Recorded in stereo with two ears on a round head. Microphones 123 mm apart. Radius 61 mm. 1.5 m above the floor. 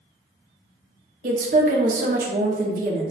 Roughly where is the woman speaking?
Right.